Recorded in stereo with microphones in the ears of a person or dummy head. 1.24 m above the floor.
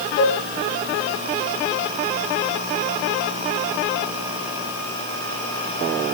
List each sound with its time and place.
0.2 s dishes clattering: 60° left (ahead or behind), 6 m